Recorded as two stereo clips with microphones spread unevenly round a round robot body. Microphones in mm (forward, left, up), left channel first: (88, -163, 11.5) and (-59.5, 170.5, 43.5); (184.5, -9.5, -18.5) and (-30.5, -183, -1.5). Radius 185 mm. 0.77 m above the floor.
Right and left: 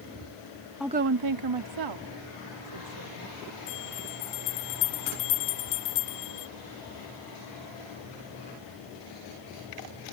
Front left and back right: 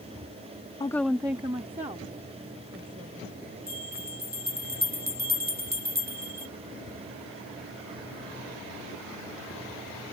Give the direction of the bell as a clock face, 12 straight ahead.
3 o'clock.